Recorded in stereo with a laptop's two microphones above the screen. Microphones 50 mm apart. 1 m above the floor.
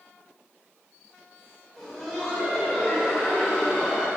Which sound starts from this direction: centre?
Laughter, at 1.8 s.